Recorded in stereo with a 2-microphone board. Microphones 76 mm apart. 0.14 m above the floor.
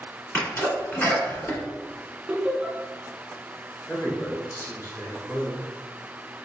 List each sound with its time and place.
0.3 s a sneeze: 30° left (ahead or behind), 1.3 m
2.3 s laughter: 15° right (ahead or behind), 1.4 m
3.9 s a man speaking: 50° left (ahead or behind), 1.7 m